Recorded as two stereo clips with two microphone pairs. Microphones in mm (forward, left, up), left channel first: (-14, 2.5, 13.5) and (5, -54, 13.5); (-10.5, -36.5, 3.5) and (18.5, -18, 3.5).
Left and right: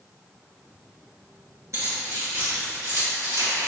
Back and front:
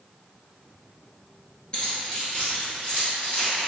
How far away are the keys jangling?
About 1.8 m.